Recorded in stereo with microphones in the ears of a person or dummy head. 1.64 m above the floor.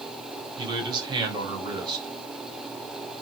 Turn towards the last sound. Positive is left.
turn(degrees=-25)  # may be behind; listen again after turning